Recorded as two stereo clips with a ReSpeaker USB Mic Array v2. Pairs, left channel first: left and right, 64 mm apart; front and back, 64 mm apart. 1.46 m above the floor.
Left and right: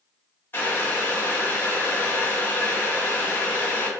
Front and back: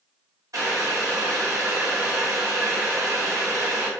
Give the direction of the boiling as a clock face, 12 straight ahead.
7 o'clock.